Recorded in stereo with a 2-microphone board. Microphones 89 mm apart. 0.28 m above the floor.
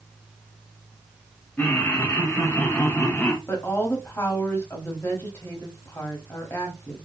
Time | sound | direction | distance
1.6 | laughter | 15° left (ahead or behind) | 1.2 m
3.5 | a woman speaking | 25° left (ahead or behind) | 1.2 m